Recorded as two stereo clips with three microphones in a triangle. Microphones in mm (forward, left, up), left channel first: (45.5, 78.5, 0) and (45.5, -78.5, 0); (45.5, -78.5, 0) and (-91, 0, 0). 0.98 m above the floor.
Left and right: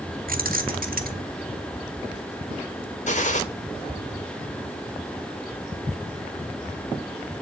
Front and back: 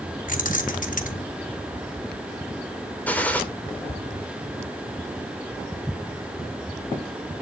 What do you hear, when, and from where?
0.3 s keys jangling: 65° right, 1.5 m
3.1 s a gunshot: 50° left, 2 m